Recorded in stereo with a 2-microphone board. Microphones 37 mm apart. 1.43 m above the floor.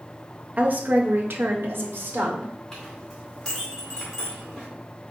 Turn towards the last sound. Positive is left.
turn(degrees=15)  # may be behind; listen again after turning